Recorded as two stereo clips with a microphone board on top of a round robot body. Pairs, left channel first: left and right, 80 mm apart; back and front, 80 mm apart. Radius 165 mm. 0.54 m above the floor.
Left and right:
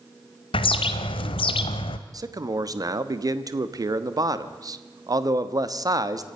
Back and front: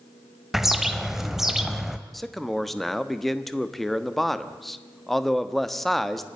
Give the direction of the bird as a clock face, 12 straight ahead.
9 o'clock.